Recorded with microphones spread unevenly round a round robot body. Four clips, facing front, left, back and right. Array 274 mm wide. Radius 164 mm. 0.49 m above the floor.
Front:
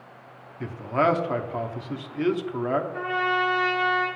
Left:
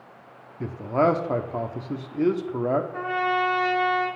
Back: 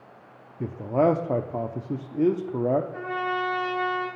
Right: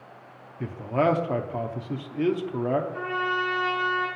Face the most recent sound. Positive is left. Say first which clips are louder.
# left 3 dB, front 3 dB
turn(degrees=150)